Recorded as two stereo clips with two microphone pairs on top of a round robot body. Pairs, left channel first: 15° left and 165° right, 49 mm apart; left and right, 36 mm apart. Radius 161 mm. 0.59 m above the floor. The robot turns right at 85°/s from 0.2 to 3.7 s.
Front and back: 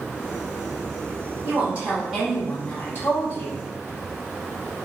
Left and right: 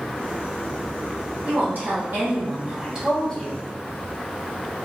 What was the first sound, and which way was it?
A woman speaking, 145° right.